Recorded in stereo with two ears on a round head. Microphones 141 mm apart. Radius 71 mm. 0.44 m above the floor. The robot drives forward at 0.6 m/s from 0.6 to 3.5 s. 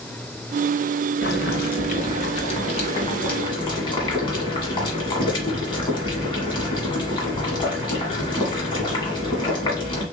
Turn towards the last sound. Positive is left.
turn(degrees=30)  # may be behind; listen again after turning